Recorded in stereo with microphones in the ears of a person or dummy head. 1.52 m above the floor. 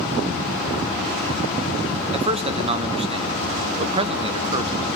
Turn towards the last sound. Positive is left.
turn(degrees=-30)  # may be behind; listen again after turning